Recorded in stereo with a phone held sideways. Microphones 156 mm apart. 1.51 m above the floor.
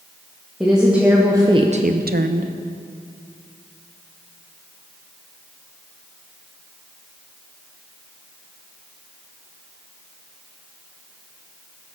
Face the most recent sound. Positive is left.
turn(degrees=-55)  # may be behind; listen again after turning